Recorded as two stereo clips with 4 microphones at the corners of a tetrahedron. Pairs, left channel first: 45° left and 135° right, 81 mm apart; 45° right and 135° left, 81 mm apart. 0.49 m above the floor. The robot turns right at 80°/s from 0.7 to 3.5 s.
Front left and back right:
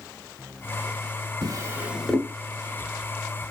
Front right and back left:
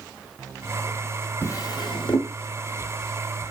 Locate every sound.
1.4 s a drawer: 100° right, 1.3 m; by 2.3 s 30° right, 1.3 m